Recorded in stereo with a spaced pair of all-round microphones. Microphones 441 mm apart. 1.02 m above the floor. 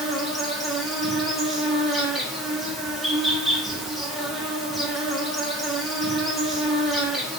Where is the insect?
Centre (ahead or behind), 0.8 m.